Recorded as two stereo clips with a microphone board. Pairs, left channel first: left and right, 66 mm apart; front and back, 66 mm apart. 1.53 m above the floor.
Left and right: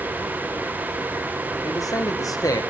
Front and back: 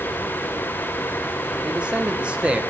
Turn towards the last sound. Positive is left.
turn(degrees=110)